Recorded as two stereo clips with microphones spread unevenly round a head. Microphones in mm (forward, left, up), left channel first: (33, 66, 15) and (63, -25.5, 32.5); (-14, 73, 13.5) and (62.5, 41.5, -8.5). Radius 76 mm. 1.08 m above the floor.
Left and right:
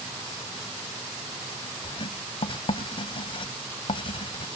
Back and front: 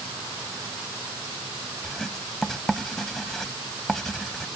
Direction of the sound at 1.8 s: 75° left.